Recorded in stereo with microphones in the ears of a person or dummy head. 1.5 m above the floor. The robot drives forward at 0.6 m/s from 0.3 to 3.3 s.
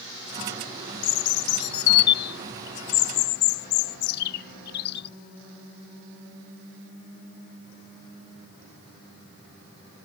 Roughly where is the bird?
Left.